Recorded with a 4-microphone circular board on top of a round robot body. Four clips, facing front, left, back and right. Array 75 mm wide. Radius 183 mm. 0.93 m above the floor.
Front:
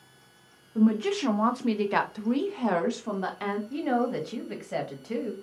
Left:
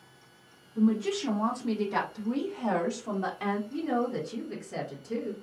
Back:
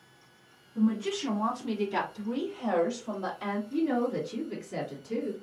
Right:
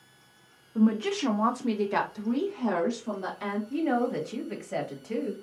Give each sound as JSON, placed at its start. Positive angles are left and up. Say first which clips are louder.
{"t": 0.8, "sound": "a woman speaking", "louder": "right 2 dB, front 4 dB", "azimuth_deg": -55, "distance_m": 0.9}
{"t": 3.7, "sound": "a woman speaking", "louder": "right 3 dB, even", "azimuth_deg": -30, "distance_m": 1.5}